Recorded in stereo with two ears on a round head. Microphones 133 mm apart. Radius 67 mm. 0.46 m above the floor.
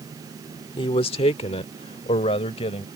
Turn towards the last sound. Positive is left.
turn(degrees=40)  # may be behind; listen again after turning